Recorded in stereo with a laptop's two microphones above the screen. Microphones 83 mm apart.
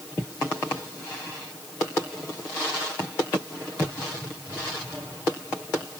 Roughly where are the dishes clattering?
No dishes clattering in this recording.